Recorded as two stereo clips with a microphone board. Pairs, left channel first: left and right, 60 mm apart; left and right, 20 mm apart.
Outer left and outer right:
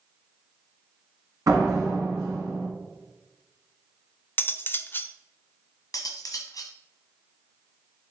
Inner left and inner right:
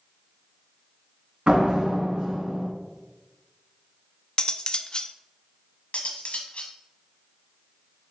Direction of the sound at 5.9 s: 70° left (ahead or behind).